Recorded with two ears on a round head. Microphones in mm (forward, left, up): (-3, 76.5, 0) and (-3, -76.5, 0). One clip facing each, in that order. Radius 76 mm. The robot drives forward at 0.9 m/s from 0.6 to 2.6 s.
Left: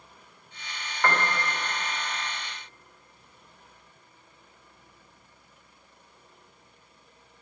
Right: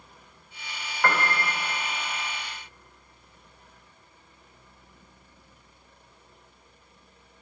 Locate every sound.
1.0 s a piano: centre (ahead or behind), 1.5 m